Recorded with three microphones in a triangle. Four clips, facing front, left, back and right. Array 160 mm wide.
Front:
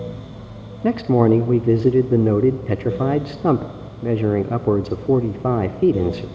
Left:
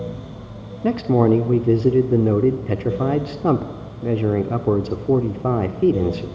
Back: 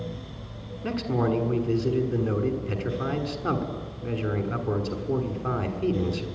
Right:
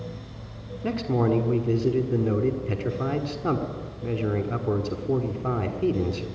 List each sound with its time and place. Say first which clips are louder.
0.8 s a man speaking: left 8 dB, front 10 dB; 35° left, 1.4 m